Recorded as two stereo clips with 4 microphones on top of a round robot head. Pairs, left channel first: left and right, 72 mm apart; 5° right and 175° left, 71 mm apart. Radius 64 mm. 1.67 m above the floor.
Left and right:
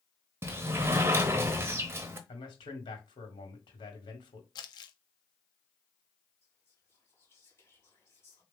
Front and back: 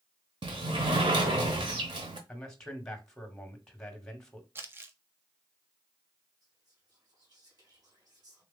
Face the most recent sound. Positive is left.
turn(degrees=145)